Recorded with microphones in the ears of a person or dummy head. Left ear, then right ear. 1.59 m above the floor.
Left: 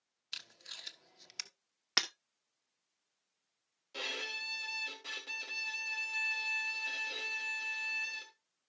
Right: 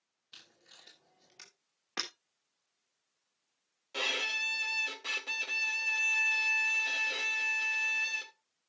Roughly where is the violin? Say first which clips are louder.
Right 7 dB; centre.